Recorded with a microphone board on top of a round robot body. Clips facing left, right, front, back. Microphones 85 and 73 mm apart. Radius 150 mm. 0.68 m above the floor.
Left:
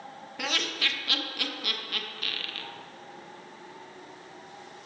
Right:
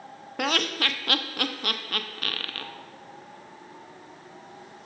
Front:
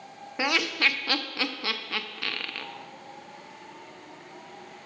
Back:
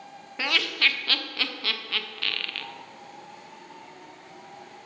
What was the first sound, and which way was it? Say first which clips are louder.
Laughter: right 6 dB, front 1 dB; 70° right.